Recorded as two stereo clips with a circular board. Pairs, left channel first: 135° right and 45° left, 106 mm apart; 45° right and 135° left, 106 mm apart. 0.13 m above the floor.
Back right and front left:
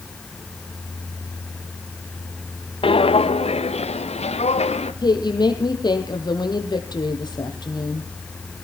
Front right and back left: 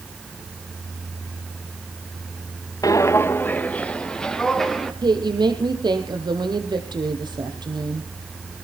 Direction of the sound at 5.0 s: Straight behind.